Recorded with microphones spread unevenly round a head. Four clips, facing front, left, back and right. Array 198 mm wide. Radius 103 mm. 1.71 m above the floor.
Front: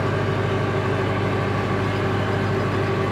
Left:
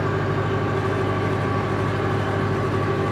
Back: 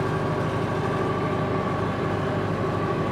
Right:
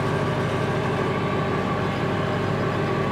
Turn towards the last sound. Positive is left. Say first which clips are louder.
# even, front 2 dB
turn(degrees=65)